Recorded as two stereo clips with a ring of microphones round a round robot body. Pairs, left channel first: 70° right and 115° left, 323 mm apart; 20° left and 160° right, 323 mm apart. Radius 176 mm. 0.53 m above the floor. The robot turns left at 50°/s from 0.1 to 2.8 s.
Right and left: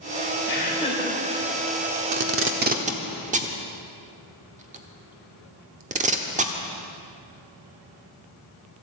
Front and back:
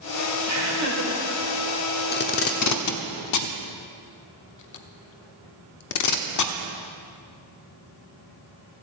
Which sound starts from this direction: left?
Tape being pulled, at 2.1 s.